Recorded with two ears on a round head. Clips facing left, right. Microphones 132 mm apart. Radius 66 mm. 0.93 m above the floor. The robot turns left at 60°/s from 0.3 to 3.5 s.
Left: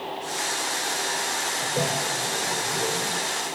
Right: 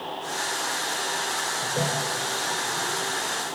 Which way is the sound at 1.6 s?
5° left (ahead or behind).